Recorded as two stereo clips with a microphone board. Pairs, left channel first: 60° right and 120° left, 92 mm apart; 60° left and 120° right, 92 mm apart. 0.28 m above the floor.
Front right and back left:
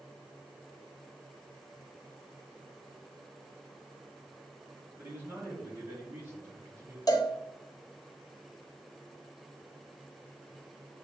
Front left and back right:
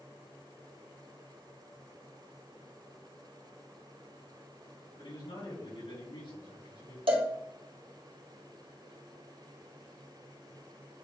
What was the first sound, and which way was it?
A man speaking, 60° left.